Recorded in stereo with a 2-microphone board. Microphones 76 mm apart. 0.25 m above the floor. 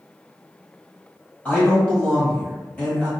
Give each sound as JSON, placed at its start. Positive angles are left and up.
{"t": 1.4, "sound": "a man speaking", "side_deg": 20, "distance_m": 1.4}